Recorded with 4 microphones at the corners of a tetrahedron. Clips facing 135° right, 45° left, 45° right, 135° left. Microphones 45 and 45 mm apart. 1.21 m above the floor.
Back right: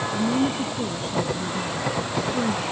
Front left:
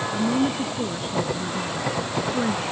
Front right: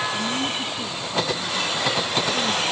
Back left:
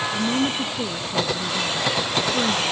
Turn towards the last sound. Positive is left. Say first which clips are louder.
# front left 1 dB, back left 3 dB
turn(degrees=125)